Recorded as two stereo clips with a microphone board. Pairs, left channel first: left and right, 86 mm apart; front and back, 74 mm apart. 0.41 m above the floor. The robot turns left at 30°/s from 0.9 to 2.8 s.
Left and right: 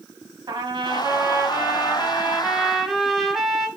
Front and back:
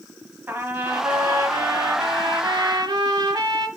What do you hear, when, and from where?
0.5 s a trumpet: 120° right, 0.9 m; by 3.7 s 175° right, 0.9 m